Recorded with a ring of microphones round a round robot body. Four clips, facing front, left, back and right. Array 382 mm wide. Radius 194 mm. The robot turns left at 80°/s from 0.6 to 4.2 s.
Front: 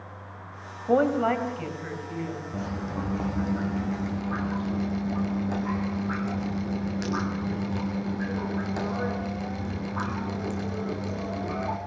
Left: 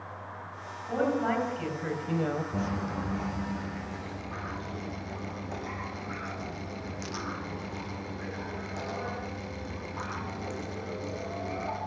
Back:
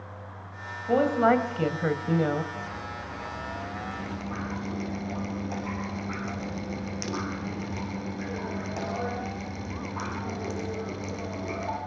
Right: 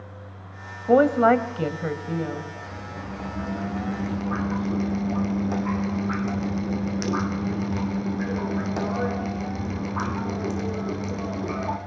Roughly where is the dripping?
Ahead left.